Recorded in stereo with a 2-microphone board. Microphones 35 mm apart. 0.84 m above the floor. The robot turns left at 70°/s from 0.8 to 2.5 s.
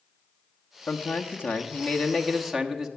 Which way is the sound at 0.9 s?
110° left.